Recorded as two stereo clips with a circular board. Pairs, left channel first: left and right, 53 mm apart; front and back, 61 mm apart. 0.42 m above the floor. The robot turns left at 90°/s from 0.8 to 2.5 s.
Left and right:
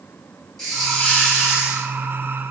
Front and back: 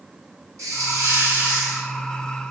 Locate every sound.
0.6 s a hiss: 170° left, 2 m; by 1.9 s 75° left, 2 m